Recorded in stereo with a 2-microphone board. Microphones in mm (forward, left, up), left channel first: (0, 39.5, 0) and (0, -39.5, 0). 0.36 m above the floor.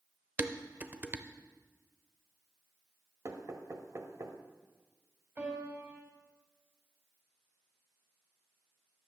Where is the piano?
25° right (ahead or behind), 2.5 m.